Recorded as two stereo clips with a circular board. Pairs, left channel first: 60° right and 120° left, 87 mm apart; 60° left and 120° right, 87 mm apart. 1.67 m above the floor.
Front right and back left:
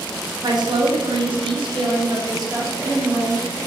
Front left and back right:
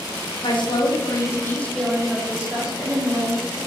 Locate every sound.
0.4 s a woman speaking: 80° left, 1.0 m; by 3.6 s 175° right, 1.6 m